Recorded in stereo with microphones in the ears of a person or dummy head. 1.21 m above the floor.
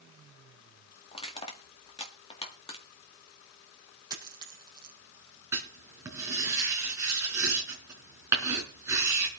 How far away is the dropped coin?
About 4.5 m.